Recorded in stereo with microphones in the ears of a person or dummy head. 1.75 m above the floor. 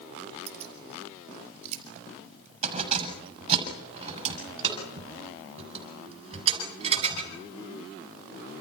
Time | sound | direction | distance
0.5 | keys jangling | 35° right (ahead or behind) | 5.5 m